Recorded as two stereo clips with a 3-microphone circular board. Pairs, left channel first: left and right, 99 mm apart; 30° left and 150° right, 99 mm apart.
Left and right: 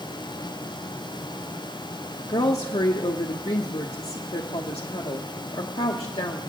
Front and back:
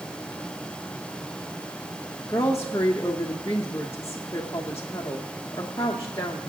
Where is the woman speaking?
90° left, 0.9 m.